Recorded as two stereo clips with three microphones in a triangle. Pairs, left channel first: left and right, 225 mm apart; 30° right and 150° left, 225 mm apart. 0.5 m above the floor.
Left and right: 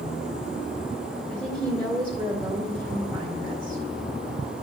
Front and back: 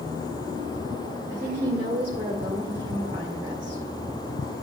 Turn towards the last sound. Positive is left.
turn(degrees=-150)